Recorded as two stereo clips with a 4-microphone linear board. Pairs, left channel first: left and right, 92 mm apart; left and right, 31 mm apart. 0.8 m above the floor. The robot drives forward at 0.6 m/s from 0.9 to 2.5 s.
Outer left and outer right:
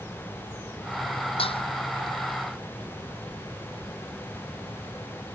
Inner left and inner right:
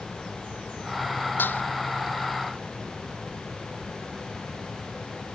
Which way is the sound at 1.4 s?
90° left.